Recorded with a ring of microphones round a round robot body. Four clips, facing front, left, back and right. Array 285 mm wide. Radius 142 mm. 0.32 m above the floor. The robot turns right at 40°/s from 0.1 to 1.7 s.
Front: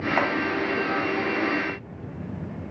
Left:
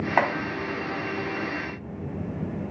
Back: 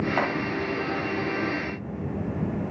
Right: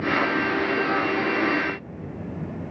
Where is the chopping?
85° left, 1.9 m; by 0.3 s 90° left, 1.9 m.